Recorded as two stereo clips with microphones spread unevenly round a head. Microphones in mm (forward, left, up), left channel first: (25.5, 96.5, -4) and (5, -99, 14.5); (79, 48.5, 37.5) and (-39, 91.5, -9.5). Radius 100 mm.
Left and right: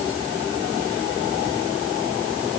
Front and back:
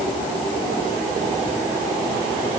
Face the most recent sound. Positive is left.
No sound to turn to.